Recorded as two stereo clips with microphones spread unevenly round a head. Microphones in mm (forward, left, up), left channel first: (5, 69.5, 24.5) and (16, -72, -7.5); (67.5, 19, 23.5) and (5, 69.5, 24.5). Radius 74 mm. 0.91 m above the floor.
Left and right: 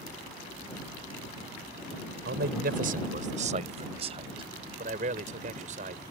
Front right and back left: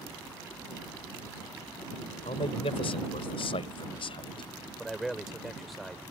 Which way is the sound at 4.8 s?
130° right.